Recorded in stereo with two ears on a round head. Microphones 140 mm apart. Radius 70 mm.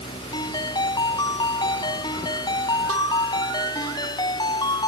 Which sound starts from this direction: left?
A ringtone, at 0.3 s.